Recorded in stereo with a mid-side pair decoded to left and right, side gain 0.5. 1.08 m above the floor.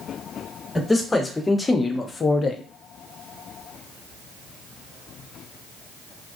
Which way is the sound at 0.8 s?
15° left.